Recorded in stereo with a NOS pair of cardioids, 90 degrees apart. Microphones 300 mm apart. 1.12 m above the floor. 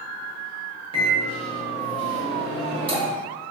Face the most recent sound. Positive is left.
turn(degrees=-15)